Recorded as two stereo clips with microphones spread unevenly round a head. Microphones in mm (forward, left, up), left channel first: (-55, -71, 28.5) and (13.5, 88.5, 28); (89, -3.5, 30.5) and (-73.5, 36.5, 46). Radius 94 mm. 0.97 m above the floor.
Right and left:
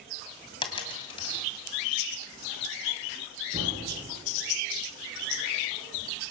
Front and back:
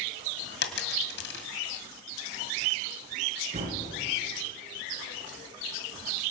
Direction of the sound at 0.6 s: 50° right.